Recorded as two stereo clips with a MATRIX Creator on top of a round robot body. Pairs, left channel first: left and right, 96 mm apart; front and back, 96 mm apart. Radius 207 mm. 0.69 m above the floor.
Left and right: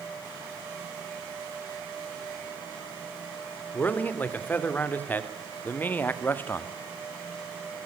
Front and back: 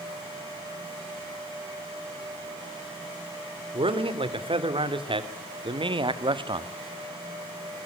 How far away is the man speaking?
About 3.5 m.